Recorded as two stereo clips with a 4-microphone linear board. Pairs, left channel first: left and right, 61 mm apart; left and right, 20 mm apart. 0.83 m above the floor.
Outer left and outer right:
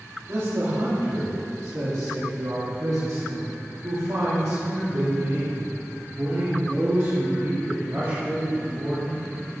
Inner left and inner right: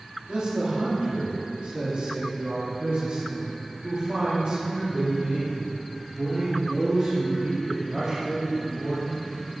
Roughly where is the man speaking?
Right.